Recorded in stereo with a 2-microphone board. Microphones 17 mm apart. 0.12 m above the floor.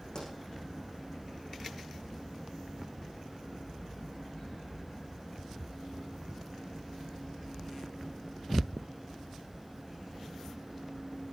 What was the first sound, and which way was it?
A pop, 45° left (ahead or behind).